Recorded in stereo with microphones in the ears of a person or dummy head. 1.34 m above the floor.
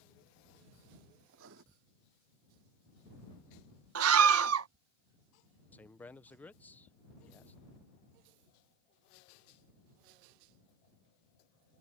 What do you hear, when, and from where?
1.3 s writing: 75° right (ahead or behind)
4.0 s a scream: 85° right
5.7 s a man speaking: 10° left (ahead or behind)